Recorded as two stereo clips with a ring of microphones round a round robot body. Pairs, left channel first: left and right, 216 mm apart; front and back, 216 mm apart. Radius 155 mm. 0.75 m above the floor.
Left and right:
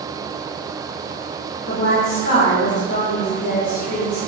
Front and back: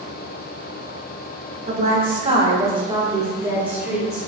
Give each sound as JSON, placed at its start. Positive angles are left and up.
{"t": 1.7, "sound": "a woman speaking", "azimuth_deg": 140, "distance_m": 3.0}